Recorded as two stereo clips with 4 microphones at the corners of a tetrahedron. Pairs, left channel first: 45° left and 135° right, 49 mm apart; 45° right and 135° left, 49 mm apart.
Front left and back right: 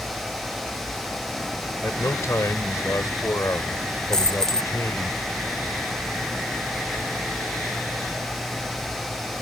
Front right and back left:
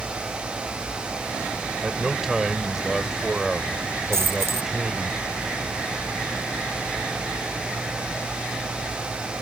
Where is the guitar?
No guitar in this recording.